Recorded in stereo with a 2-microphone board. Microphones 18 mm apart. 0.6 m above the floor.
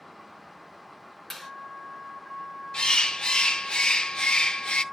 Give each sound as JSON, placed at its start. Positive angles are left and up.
{"t": 1.3, "sound": "a clap", "side_deg": 15, "distance_m": 8.0}
{"t": 2.7, "sound": "a bird", "side_deg": 60, "distance_m": 0.7}